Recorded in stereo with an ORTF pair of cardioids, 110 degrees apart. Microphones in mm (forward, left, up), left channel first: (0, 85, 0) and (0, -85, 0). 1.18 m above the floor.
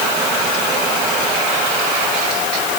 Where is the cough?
I don't hear a cough.